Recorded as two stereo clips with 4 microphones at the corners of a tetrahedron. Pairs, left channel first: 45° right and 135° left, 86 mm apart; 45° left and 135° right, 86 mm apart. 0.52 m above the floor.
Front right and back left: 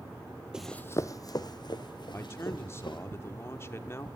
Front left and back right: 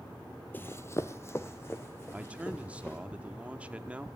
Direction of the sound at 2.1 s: 70° right.